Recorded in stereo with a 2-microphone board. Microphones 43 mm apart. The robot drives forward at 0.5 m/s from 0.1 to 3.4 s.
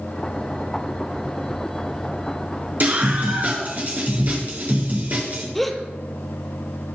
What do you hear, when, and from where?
2.8 s a scream: 45° right (ahead or behind), 5 m
5.5 s a gasp: 5° left (ahead or behind), 1.1 m